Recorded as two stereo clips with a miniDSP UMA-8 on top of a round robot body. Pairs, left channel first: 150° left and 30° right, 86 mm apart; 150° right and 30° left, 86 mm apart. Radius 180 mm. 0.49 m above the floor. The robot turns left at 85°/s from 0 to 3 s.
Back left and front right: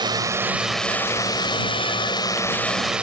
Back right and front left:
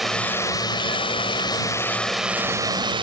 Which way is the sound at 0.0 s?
60° right.